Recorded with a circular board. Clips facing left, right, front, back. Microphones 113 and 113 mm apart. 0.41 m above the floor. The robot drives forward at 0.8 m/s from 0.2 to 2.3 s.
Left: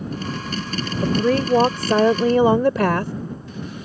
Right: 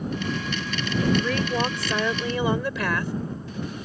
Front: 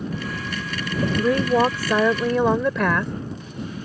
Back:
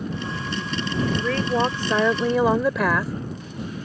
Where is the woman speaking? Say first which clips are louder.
Left 6 dB, front 5 dB; 55° left; by 3.1 s 95° left.